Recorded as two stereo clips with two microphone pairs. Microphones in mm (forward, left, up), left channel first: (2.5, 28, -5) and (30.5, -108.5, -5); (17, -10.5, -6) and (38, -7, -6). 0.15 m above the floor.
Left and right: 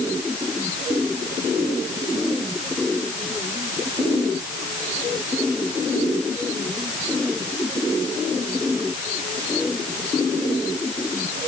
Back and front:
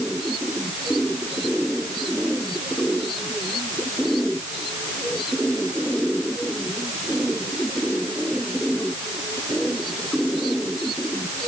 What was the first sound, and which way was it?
Only background noise.